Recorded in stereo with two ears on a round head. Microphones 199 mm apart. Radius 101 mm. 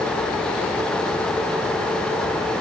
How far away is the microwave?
No microwave in this recording.